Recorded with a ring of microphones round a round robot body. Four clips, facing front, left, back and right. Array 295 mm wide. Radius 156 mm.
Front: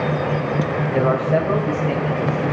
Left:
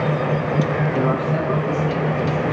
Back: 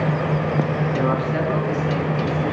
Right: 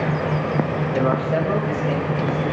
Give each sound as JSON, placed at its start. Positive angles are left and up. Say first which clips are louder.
{"t": 0.9, "sound": "a man speaking", "louder": "right 4 dB, front 6 dB", "azimuth_deg": -20, "distance_m": 2.5}